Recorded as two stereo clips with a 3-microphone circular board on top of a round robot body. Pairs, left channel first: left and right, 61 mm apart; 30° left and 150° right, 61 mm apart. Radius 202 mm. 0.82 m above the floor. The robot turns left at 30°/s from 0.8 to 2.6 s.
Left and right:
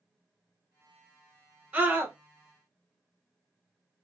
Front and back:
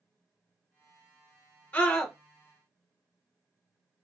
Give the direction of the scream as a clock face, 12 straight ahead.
1 o'clock.